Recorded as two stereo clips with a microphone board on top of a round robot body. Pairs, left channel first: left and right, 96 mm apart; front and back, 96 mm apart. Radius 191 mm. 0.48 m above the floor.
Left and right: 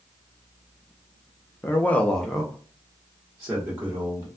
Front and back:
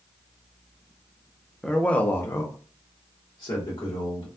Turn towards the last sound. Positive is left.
turn(degrees=-30)